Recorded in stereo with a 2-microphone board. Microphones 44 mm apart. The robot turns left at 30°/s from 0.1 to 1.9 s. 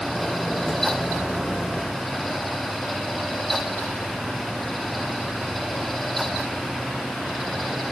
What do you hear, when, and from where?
Only background noise.